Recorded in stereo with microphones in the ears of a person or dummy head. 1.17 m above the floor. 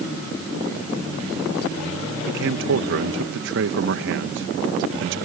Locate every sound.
2.3 s a man speaking: 60° right (ahead or behind)